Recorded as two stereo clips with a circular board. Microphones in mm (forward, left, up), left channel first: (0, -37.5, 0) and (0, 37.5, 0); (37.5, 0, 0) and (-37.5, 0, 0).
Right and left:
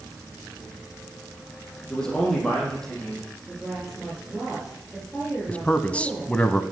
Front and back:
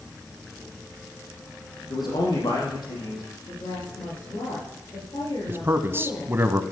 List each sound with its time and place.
1.9 s a man speaking: 10° right, 6.5 m
3.5 s a woman speaking: straight ahead, 6 m
5.5 s a man speaking: 150° right, 1.1 m